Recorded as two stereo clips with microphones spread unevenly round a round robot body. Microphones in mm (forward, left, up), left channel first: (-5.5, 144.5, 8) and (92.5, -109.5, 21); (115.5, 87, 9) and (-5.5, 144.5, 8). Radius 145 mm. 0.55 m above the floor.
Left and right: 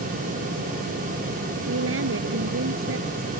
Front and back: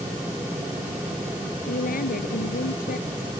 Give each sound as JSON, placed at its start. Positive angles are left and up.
{"t": 1.7, "sound": "a woman speaking", "azimuth_deg": -25}